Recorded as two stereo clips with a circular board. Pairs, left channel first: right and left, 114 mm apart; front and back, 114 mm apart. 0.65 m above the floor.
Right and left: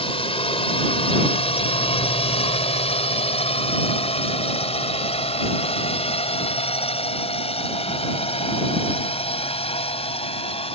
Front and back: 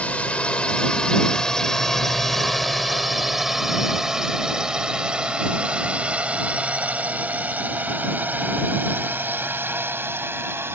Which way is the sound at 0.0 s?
75° right.